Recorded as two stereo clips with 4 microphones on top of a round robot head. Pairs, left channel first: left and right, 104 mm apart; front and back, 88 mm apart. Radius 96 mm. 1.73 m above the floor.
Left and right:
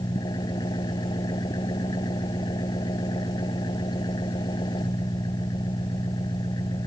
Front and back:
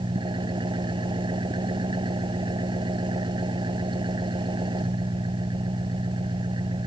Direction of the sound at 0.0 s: 150° left.